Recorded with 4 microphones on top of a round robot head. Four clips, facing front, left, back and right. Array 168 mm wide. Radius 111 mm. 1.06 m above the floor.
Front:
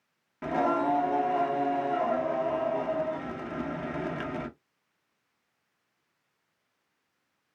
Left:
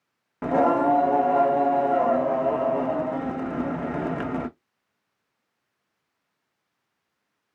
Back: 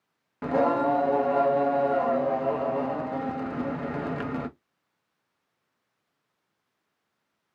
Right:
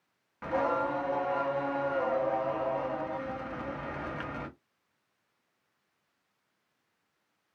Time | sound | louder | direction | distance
0.4 | singing | left 9 dB, back 3 dB | 105° left | 0.6 m